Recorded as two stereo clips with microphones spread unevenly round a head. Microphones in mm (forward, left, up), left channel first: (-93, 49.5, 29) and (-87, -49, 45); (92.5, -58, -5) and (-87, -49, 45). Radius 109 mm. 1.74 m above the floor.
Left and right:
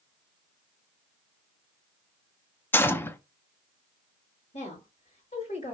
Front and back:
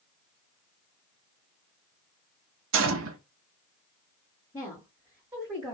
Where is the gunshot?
165° left, 0.6 m.